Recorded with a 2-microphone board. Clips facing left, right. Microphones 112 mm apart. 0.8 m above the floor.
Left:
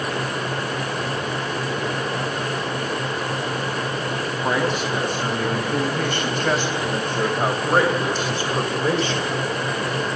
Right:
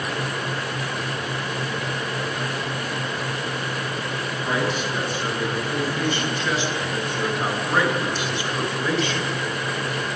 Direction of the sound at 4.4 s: 65° left (ahead or behind).